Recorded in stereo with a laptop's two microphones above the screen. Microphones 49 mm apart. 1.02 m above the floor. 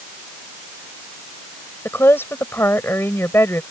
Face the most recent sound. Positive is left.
turn(degrees=55)  # may be behind; listen again after turning